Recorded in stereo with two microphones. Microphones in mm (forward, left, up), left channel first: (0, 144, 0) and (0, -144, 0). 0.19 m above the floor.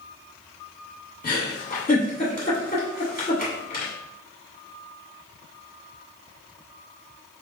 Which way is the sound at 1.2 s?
30° left (ahead or behind).